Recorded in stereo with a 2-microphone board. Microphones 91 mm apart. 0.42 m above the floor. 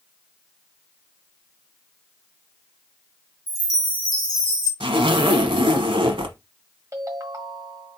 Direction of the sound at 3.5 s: 35° left (ahead or behind).